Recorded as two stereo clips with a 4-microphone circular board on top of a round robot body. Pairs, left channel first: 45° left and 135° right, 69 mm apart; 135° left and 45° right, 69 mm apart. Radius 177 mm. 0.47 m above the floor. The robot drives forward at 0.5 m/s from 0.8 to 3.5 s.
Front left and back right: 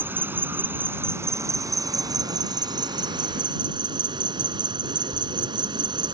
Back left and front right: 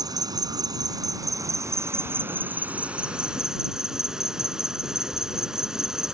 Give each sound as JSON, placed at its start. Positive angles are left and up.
{"t": 0.0, "sound": "an insect", "azimuth_deg": -75}